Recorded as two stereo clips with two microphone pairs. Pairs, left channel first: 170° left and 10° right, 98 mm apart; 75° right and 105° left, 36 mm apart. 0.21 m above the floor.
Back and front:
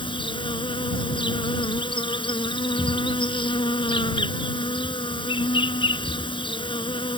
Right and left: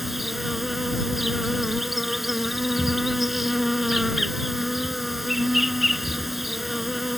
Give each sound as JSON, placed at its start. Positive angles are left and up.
{"t": 0.0, "sound": "an insect", "azimuth_deg": -170}